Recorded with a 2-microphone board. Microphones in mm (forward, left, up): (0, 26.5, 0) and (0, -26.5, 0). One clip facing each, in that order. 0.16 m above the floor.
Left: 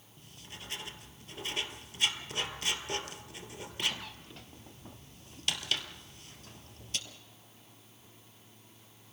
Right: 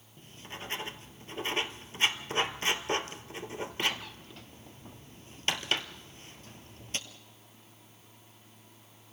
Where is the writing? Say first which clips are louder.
Right 6 dB; 35° right (ahead or behind), 1.2 m.